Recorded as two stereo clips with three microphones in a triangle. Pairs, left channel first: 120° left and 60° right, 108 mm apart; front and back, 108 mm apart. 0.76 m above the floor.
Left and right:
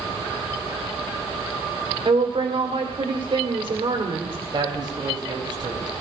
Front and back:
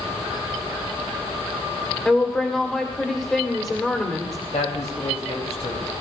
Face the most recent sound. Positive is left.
turn(degrees=-15)